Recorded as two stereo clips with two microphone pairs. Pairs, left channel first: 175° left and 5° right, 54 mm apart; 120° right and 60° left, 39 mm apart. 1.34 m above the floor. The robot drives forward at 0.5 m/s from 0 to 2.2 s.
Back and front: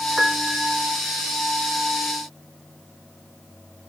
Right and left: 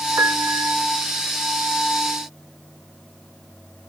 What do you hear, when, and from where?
0.2 s a piano: 75° left; by 0.8 s 80° left